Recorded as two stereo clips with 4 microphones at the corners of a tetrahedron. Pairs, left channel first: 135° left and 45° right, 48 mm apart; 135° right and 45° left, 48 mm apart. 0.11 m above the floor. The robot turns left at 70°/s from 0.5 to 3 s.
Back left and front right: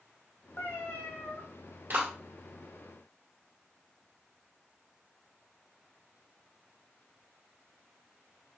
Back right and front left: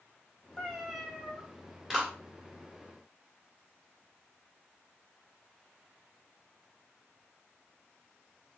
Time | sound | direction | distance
0.6 | a cat meowing | 160° left | 1.9 m
1.9 | a clap | 30° right | 1.8 m